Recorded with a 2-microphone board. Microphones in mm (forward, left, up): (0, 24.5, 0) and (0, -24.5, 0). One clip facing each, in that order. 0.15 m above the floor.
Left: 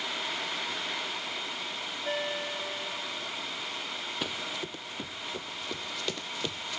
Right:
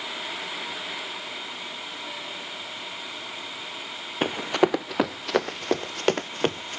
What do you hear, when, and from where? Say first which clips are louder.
2.0 s a ringtone: left 4 dB; 45° left (ahead or behind)
4.2 s running footsteps: right 17 dB; 40° right (ahead or behind)